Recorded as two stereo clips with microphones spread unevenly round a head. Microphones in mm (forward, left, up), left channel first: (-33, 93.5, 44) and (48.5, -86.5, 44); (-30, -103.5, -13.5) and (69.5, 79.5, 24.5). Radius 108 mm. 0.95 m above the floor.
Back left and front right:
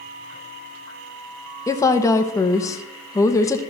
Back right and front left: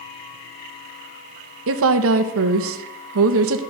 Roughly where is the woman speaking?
Ahead left.